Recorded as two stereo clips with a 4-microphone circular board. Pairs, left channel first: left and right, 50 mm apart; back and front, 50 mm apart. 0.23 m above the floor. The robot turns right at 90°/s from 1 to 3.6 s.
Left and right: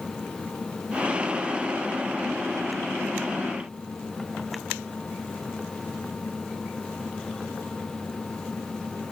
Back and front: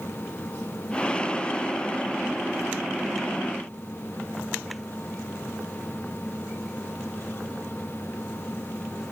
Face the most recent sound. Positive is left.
No sound to turn to.